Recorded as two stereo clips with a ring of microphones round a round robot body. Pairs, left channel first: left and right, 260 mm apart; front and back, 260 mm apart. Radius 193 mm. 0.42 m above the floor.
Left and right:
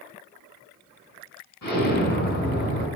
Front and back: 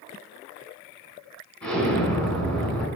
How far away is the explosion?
About 4.5 m.